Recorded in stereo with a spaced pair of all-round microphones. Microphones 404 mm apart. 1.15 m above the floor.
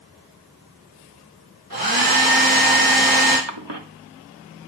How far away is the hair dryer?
About 3.5 m.